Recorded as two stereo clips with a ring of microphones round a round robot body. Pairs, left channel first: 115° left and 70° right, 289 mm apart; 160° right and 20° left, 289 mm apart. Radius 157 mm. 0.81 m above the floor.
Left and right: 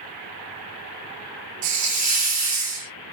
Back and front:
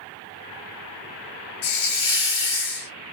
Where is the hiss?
100° right, 0.8 m.